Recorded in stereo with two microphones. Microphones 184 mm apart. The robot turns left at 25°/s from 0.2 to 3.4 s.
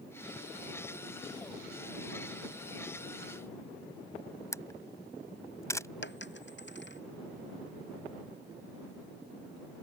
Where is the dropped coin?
65° left (ahead or behind).